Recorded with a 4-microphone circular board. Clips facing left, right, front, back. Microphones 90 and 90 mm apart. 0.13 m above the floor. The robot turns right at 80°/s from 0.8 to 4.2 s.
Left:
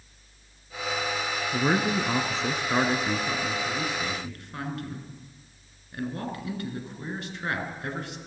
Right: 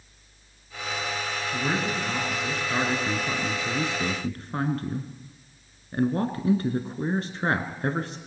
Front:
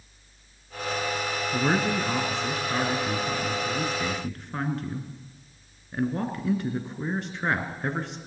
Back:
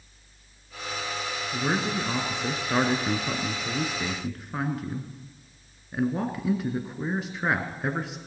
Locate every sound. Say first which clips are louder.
1.5 s a man speaking: left 4 dB, front 2 dB; 50° left, 1.4 m; by 8.2 s 95° right, 1.4 m